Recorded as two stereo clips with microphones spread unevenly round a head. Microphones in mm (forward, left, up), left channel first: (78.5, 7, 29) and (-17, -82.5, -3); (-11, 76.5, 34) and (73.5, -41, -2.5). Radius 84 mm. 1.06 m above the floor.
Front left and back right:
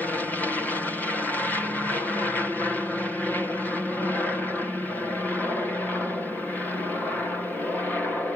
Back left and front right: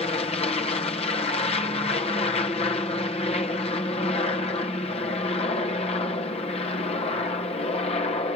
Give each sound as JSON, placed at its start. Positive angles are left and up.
{"t": 0.0, "sound": "an aircraft", "azimuth_deg": 135}